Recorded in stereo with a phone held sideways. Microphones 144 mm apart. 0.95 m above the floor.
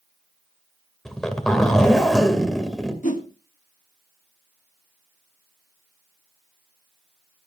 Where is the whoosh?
60° left (ahead or behind), 1.6 m.